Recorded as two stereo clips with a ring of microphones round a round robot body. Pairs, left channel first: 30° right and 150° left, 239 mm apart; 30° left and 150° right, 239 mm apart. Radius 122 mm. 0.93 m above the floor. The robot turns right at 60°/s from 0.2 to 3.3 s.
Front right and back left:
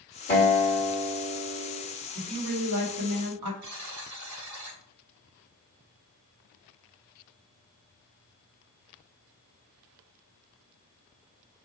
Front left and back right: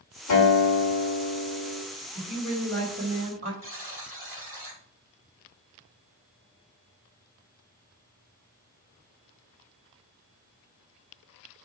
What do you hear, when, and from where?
0.3 s a guitar: 20° left, 1.4 m; by 1.8 s 115° left, 1.4 m
2.1 s a woman speaking: 75° left, 1.7 m; by 3.5 s 145° left, 1.7 m
3.6 s a buzzer: 130° left, 2 m